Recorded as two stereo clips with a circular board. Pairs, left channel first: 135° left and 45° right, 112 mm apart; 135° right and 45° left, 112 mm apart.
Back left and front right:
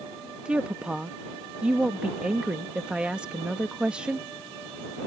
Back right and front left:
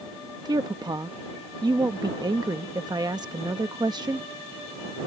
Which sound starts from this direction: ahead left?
A woman speaking, at 0.5 s.